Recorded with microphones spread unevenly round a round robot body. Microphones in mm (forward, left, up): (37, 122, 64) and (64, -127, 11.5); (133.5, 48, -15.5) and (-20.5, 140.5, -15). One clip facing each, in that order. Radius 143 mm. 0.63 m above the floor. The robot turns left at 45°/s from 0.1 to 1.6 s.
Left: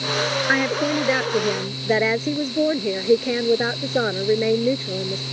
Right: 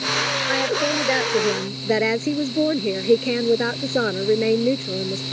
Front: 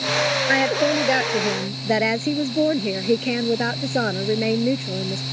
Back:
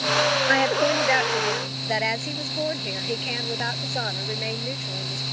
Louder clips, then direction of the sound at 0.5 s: Even, front 4 dB; 45° left.